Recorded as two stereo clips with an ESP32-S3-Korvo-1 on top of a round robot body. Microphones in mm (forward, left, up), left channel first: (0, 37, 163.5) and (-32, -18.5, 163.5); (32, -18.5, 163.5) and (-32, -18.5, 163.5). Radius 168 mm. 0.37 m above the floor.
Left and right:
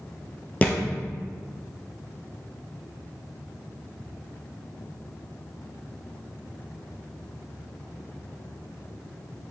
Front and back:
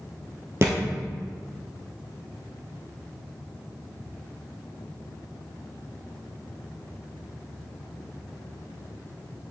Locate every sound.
0.6 s a thud: 125° left, 1.3 m